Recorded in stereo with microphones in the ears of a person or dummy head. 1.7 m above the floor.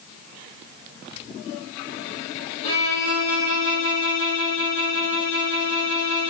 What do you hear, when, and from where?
2.6 s a violin: 75° left (ahead or behind), 7 m